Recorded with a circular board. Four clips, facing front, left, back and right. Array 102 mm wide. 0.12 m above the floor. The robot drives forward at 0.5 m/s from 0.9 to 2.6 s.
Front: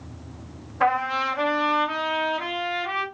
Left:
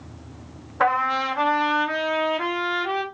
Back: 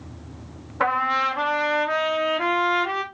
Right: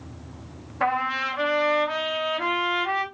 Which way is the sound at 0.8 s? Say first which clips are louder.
Left 4 dB, even; 115° left.